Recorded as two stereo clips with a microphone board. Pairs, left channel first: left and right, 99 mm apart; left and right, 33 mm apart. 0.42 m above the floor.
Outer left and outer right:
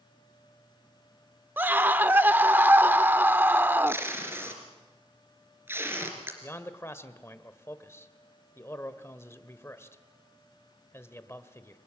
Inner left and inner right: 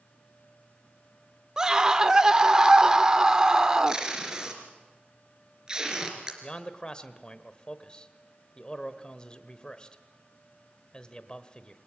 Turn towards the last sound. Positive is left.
turn(degrees=25)  # may be behind; listen again after turning